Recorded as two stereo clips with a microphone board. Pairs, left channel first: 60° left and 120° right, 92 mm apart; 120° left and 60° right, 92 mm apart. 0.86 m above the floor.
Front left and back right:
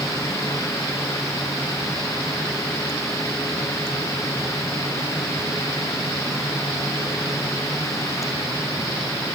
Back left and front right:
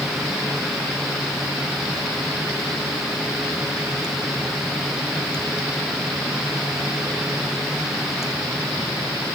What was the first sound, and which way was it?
Only background noise.